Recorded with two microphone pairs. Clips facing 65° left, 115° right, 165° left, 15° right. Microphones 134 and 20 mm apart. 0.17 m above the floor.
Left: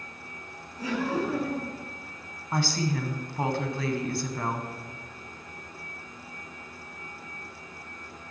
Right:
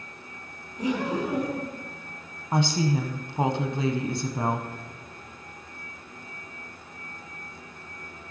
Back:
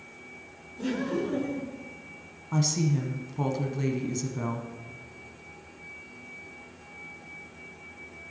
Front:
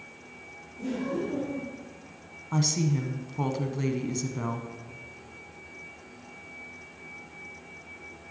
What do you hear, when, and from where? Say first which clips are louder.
0.8 s laughter: right 2 dB, back 2 dB; straight behind, 2.5 m
2.5 s a woman speaking: right 4 dB, even; 85° right, 1.0 m